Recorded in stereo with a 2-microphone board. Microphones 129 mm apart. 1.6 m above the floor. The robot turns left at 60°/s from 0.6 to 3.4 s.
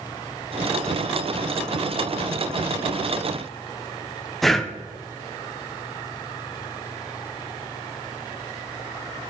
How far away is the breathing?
About 0.5 m.